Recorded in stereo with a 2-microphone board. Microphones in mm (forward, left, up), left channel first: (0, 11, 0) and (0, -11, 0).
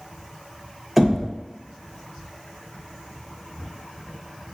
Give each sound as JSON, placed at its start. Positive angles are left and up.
{"t": 1.0, "sound": "knocking", "side_deg": 0, "distance_m": 1.3}